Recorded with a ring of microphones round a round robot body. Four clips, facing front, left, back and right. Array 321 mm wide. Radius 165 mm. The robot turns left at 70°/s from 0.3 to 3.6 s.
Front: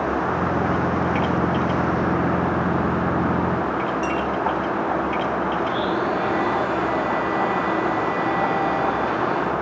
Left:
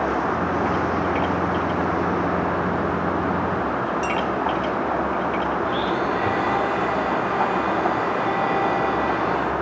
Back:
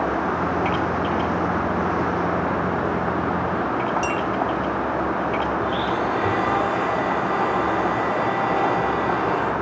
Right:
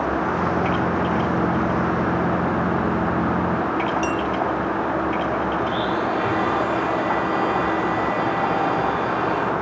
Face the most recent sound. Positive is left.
turn(degrees=-165)